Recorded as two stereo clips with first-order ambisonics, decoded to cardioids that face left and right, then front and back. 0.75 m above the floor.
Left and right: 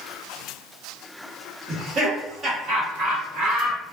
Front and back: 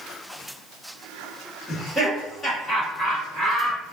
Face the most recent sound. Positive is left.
turn(degrees=-65)